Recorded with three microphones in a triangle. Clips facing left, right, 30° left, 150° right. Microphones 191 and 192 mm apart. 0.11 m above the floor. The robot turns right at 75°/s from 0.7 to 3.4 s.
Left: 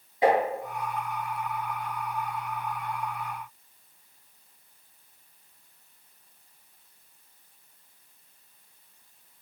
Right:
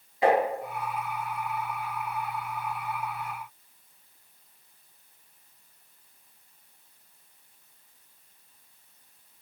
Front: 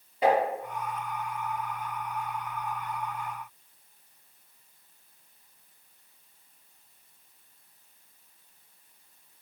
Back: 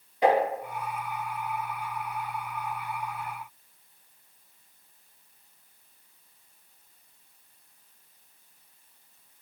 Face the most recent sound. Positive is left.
turn(degrees=-60)